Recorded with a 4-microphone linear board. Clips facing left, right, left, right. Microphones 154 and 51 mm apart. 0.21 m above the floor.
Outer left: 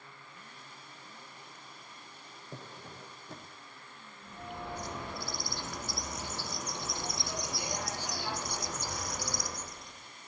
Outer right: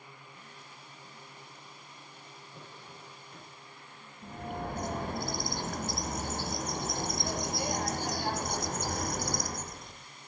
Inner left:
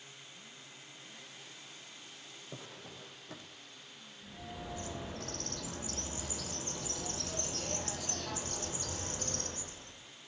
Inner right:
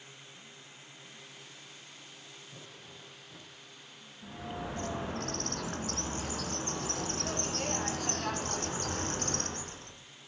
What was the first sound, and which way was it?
A drawer, 85° left.